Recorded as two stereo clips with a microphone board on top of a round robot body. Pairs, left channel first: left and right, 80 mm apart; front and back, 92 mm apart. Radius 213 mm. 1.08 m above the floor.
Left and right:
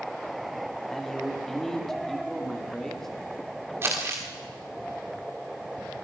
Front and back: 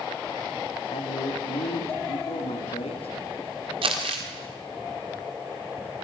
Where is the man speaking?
5° left, 3 m.